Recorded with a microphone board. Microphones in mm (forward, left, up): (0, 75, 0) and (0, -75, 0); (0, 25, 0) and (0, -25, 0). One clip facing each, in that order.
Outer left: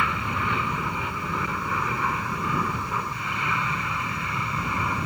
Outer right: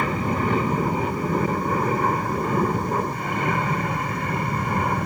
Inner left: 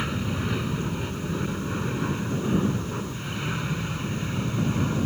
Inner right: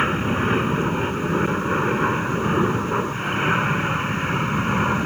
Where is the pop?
I don't hear a pop.